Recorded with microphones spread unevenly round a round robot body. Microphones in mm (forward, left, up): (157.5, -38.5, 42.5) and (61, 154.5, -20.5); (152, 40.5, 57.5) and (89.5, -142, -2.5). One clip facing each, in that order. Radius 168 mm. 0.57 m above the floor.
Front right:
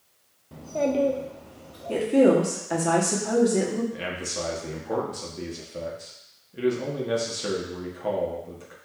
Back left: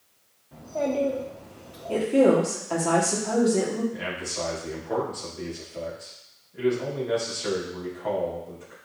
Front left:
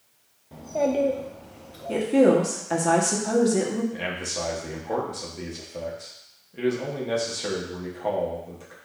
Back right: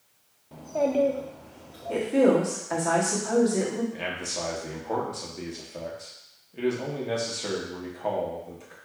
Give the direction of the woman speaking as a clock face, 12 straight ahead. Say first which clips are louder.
Front right 1 dB, front left 2 dB; 11 o'clock.